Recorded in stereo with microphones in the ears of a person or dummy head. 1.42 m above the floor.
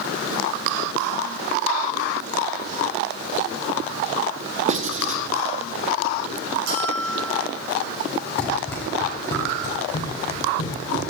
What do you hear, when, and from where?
4.7 s writing: 45° right (ahead or behind), 0.6 m
6.7 s a bell: 70° right (ahead or behind), 5.5 m
8.4 s running footsteps: 15° left (ahead or behind), 3 m; by 11.1 s 60° left (ahead or behind), 4.5 m